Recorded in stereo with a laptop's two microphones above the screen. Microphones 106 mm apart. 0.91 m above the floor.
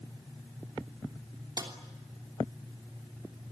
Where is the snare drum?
40° right (ahead or behind), 3 m.